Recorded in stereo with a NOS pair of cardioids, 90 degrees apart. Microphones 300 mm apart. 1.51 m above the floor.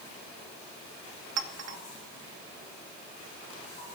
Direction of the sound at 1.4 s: 65° right.